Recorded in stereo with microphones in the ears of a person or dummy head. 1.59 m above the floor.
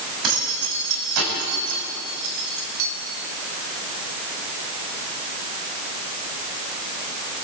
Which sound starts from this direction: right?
Keys jangling, at 0.2 s.